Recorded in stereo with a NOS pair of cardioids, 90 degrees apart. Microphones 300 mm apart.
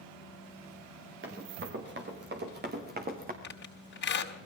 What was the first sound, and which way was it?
Running footsteps, 40° right.